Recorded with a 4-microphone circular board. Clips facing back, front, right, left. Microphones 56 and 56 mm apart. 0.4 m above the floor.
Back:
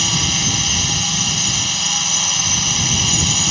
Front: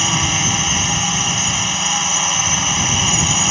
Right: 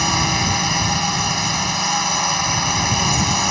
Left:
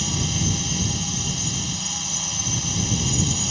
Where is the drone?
65° right.